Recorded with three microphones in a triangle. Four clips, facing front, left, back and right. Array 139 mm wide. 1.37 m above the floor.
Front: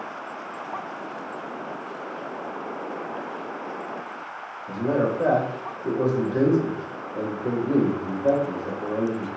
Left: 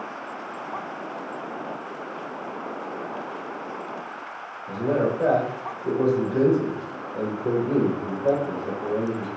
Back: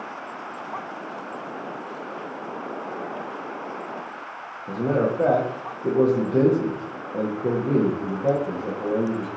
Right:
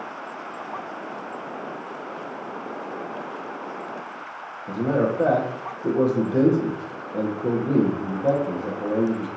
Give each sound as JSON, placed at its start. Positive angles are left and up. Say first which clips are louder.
{"t": 4.7, "sound": "a man speaking", "louder": "right 1 dB, back 1 dB", "azimuth_deg": -135, "distance_m": 1.6}